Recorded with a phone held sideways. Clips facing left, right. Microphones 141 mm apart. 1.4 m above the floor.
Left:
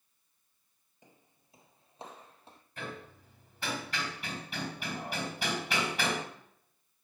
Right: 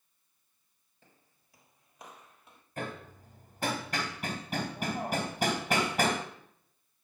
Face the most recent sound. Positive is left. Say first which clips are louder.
# right 4 dB
turn(degrees=-45)  # may be behind; listen again after turning